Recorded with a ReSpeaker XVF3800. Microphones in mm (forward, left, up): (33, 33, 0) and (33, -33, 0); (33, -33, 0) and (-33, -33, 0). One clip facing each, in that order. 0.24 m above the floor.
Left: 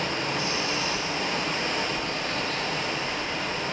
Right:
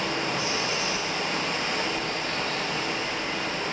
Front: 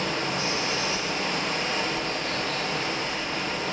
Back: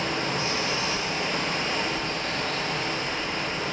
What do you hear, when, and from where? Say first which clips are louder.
0.0 s running water: even, even; 150° left, 0.9 m